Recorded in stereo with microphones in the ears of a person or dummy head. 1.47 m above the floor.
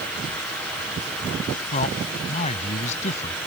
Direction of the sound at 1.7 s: 40° left (ahead or behind).